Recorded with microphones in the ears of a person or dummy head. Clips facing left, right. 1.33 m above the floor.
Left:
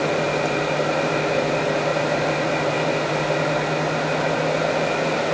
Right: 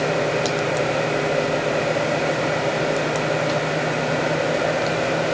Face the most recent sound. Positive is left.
No sound to turn to.